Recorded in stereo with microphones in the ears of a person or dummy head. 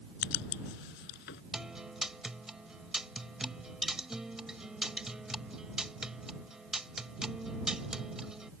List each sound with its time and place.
0.2 s writing: 60° left (ahead or behind)
1.5 s a guitar: 5° right (ahead or behind)